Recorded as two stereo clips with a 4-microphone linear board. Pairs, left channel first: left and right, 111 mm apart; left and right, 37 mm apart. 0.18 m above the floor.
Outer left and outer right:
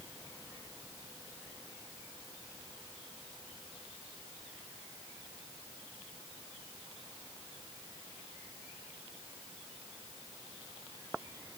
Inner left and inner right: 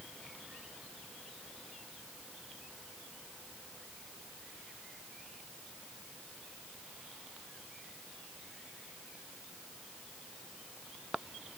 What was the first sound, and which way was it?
Only background noise.